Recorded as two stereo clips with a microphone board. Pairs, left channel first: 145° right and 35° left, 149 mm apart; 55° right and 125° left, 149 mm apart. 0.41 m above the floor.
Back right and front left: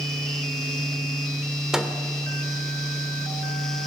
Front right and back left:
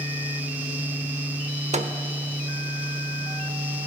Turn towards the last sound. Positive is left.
turn(degrees=120)